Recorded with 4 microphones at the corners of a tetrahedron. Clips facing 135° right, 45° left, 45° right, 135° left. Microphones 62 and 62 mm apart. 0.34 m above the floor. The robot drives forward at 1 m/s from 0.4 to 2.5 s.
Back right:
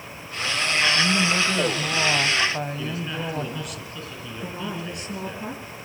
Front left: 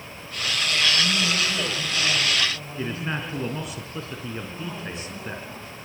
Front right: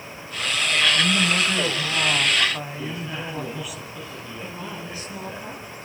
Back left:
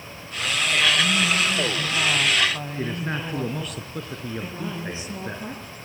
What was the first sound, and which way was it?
A woman speaking, 80° right.